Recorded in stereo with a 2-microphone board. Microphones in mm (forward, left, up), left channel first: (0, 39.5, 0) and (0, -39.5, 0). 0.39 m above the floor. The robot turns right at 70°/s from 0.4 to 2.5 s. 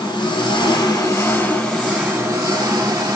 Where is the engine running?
85° left, 1.1 m; by 3.2 s 125° right, 1.1 m.